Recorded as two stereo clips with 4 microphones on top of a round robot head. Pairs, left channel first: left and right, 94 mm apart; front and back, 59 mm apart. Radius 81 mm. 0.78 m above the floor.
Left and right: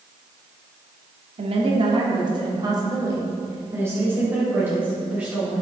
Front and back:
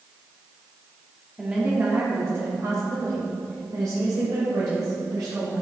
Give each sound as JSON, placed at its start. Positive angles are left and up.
{"t": 1.4, "sound": "a woman speaking", "azimuth_deg": -100, "distance_m": 1.5}